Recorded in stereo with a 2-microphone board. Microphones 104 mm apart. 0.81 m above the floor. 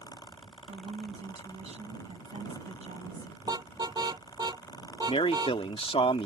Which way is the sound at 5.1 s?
65° left (ahead or behind).